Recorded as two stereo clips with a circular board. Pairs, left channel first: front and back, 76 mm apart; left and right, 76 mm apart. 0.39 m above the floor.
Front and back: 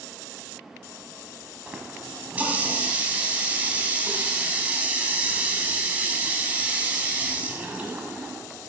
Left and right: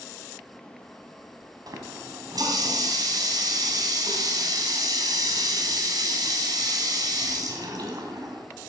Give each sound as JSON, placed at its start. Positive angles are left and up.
{"t": 1.7, "sound": "a running tap", "azimuth_deg": -110, "distance_m": 1.9}